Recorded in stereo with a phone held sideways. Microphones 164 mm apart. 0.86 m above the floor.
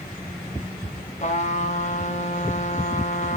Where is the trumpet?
45° left (ahead or behind), 1.2 m.